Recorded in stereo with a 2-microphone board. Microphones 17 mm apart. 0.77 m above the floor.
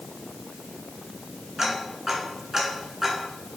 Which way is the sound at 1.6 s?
25° right (ahead or behind).